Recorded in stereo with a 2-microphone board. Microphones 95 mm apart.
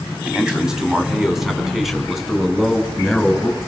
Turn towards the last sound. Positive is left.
turn(degrees=0)  # may be behind; listen again after turning